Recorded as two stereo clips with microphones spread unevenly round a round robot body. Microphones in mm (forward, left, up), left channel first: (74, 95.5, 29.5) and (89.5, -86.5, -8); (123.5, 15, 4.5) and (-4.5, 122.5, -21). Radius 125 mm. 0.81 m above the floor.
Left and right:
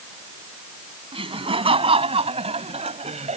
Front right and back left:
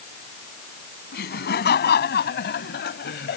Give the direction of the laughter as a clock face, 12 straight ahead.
1 o'clock.